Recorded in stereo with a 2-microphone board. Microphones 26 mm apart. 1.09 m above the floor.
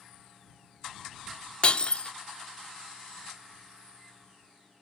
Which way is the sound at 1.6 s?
35° left (ahead or behind).